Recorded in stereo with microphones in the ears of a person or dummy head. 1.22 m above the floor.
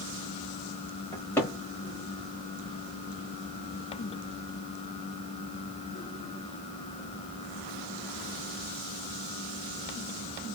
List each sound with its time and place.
1.1 s a cupboard door: 10° left (ahead or behind), 1.3 m